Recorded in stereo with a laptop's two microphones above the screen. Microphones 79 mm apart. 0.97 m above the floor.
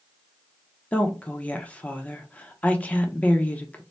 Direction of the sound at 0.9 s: 20° left (ahead or behind).